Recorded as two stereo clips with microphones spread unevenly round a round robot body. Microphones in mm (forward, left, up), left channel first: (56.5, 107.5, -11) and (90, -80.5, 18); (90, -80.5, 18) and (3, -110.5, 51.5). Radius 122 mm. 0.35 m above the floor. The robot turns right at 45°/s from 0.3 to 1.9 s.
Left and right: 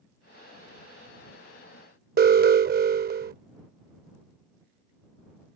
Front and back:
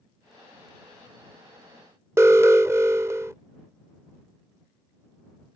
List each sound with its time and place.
2.2 s an alarm: 85° right